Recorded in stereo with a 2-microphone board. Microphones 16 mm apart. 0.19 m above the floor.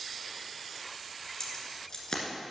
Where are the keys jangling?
40° left (ahead or behind), 1.5 m.